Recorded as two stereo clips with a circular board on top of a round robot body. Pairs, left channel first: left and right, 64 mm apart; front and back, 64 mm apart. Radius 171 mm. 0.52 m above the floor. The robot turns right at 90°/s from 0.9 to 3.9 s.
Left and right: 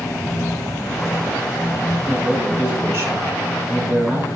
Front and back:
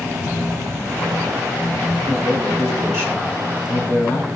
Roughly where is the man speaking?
Behind left.